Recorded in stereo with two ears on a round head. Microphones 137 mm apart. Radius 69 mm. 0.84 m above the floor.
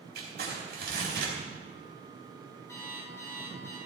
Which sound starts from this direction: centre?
An alarm clock, at 2.7 s.